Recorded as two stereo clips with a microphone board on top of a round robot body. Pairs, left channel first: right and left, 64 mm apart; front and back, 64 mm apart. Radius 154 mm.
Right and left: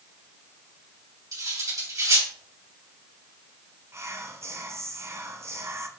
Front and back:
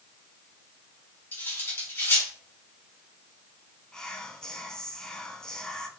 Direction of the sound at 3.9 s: 75° left.